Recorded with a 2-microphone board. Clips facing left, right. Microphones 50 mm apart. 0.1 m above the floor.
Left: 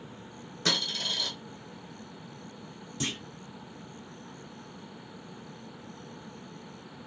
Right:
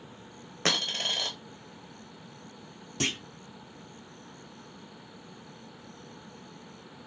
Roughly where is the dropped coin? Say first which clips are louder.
Right 2 dB; right.